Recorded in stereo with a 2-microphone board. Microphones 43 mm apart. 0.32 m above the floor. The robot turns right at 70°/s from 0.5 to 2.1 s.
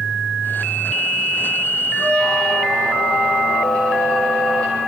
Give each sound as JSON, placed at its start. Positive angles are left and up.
{"t": 2.0, "sound": "a squeak", "side_deg": 25, "distance_m": 7.0}